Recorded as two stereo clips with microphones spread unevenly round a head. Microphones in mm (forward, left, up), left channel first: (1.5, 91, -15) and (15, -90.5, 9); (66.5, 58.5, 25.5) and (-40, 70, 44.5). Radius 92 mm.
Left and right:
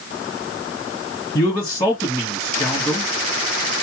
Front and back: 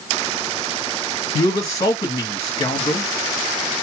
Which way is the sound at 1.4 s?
25° left.